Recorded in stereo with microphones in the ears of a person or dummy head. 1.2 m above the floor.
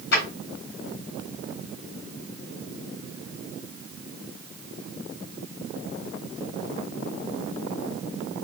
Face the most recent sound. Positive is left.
turn(degrees=70)  # may be behind; listen again after turning